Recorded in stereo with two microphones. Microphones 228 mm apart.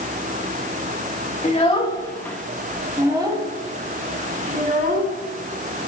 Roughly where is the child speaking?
Left.